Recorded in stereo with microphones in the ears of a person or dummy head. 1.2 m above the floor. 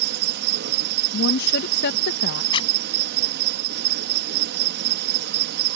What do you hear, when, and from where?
0.0 s an insect: 60° right (ahead or behind)
1.1 s a woman speaking: 65° left (ahead or behind)
2.5 s a zipper: 30° left (ahead or behind)